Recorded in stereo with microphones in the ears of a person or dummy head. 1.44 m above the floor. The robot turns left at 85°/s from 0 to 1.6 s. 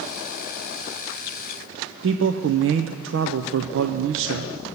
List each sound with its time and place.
2.0 s a man speaking: 65° right (ahead or behind), 0.6 m